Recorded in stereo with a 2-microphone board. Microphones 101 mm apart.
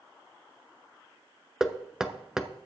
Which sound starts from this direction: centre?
Knocking, at 1.6 s.